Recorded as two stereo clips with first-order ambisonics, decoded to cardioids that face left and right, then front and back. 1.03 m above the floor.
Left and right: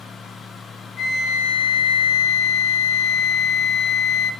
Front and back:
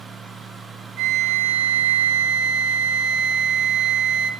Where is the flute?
140° left, 1.0 m.